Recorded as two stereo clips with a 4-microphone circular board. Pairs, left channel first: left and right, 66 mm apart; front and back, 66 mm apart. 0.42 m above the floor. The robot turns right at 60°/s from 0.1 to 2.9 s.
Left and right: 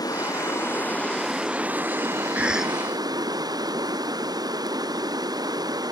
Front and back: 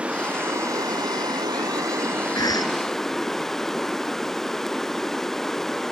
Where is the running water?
105° left; by 5.9 s 85° right.